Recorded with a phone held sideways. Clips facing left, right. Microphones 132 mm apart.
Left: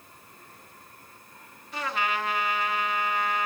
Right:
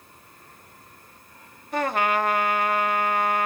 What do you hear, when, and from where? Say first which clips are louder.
1.7 s a trumpet: right 7 dB; 55° right (ahead or behind), 1.2 m